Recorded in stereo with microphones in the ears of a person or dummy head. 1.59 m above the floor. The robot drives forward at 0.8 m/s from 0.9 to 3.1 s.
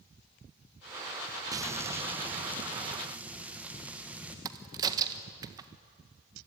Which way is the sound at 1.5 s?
15° right (ahead or behind).